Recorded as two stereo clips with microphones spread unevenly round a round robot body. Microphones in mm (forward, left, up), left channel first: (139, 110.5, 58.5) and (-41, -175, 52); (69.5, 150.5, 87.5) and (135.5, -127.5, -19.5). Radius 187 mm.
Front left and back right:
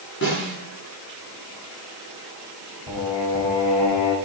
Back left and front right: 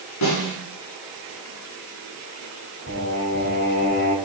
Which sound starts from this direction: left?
Singing, at 2.9 s.